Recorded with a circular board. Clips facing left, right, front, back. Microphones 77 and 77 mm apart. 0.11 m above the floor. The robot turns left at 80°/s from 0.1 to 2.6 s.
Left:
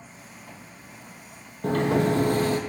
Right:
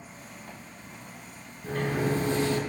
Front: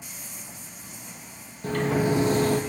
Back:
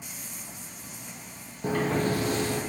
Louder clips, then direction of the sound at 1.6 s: Left 6 dB, front 2 dB; 110° left.